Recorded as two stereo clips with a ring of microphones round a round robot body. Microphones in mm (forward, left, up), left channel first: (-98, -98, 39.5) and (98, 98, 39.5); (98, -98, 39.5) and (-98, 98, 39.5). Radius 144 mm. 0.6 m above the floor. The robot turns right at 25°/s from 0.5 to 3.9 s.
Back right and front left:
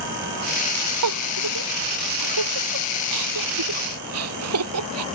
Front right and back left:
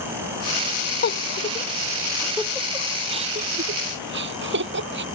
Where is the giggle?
10° left; by 5.0 s 85° left.